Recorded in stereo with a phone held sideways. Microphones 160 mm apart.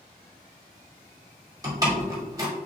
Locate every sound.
1.6 s a door slam: 20° right (ahead or behind), 2.5 m